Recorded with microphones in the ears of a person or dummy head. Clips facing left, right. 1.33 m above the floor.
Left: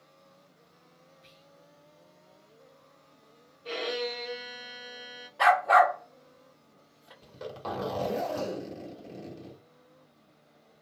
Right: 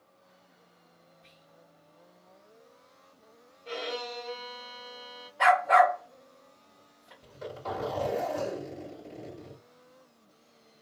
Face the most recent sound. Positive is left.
turn(degrees=80)